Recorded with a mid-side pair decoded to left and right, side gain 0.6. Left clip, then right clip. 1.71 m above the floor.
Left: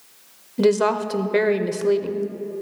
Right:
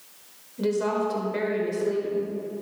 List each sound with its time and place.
0.6 s a woman speaking: 55° left, 0.8 m